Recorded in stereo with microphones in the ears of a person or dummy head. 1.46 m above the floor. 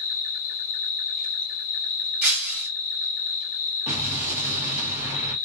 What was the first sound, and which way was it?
An insect, 40° left (ahead or behind).